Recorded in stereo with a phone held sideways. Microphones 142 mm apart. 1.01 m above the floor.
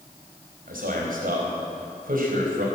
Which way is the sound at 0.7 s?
80° right.